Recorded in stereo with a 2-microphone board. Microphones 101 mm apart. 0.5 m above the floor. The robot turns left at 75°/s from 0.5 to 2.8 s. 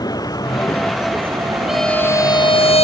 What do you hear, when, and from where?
0.0 s a vehicle: 40° left; by 2.8 s 135° right
1.7 s a violin: 175° right; by 2.8 s 100° left